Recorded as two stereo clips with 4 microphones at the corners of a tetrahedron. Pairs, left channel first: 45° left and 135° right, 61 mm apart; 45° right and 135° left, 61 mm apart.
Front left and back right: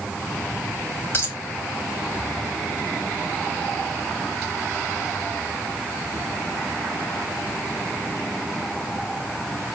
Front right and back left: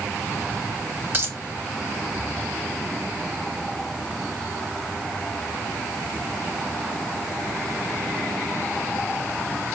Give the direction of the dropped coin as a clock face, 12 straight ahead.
9 o'clock.